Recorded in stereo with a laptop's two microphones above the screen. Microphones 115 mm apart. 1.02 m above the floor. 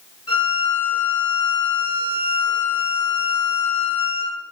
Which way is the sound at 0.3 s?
65° left (ahead or behind).